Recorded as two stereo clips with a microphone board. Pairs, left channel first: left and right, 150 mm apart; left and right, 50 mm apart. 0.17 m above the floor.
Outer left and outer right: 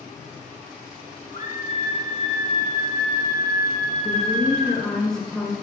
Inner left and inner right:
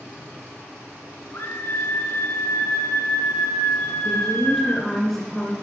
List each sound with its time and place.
1.3 s a scream: 65° left (ahead or behind), 2.5 m
4.0 s a woman speaking: 5° left (ahead or behind), 1.9 m